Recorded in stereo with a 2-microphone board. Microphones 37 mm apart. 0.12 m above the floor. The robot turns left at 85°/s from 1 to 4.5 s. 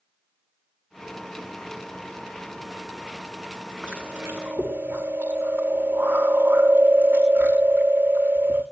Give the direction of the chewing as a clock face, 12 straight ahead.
2 o'clock.